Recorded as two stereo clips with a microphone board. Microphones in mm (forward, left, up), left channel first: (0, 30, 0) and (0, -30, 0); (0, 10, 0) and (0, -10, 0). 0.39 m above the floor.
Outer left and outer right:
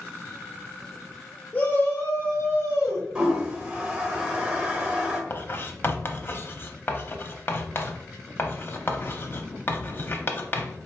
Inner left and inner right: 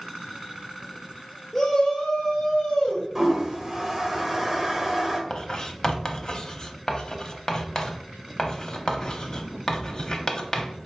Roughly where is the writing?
Left.